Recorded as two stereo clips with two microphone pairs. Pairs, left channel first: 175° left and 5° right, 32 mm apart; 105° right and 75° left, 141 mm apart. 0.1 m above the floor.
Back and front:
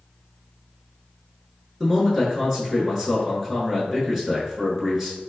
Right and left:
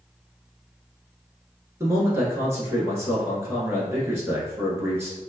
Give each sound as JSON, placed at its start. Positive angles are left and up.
{"t": 1.8, "sound": "a man speaking", "azimuth_deg": 50, "distance_m": 1.1}